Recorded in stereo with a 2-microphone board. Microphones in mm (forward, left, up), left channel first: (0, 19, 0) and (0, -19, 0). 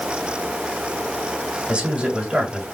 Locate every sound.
1.7 s a man speaking: 30° right (ahead or behind), 2 m